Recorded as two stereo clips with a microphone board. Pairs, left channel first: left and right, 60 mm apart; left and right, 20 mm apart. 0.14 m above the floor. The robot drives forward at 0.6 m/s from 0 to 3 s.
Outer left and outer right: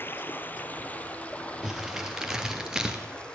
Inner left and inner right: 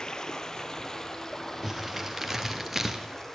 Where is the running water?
35° left (ahead or behind), 1.2 m; by 3.4 s 15° left (ahead or behind), 3 m.